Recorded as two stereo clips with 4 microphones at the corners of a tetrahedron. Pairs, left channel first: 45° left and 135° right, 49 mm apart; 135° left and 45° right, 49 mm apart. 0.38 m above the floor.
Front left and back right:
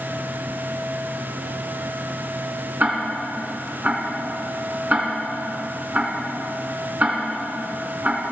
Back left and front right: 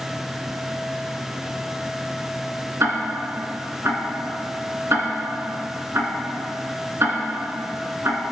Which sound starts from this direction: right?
Ticking, at 2.8 s.